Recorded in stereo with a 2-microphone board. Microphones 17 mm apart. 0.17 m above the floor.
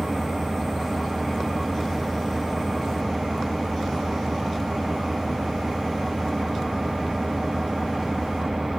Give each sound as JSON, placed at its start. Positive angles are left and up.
{"t": 0.0, "sound": "an engine running", "side_deg": -75, "distance_m": 5.5}